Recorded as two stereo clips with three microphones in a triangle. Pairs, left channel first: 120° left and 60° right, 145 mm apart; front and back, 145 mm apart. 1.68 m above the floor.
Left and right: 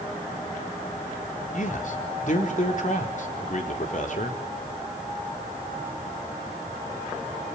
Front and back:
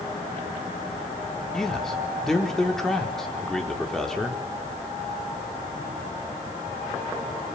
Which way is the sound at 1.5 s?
85° left.